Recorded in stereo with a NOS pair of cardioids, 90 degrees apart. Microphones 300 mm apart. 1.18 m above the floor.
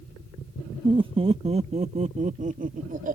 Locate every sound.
0.8 s laughter: 15° right; by 3.2 s 25° right